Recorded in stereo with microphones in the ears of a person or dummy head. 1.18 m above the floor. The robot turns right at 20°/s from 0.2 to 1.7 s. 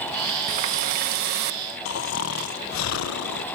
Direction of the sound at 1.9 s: 70° left (ahead or behind).